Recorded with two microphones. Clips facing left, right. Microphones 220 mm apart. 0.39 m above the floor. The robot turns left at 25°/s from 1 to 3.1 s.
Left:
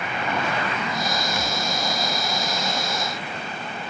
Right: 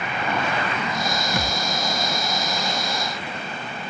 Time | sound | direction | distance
1.3 | a thud | 60° right (ahead or behind) | ?